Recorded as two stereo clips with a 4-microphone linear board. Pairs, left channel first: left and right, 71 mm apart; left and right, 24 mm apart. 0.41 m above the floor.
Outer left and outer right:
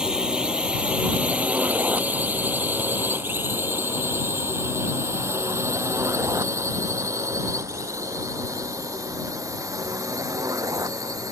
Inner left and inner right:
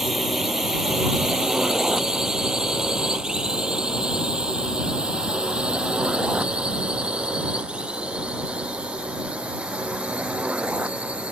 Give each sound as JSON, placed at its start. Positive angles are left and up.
{"t": 0.0, "sound": "a drone", "side_deg": -10}